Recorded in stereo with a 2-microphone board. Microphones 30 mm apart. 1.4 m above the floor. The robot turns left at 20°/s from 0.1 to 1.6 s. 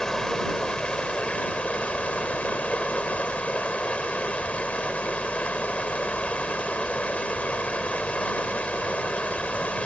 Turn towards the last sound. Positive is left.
turn(degrees=130)